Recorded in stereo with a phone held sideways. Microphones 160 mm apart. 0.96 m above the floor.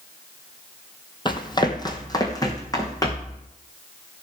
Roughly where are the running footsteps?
Left.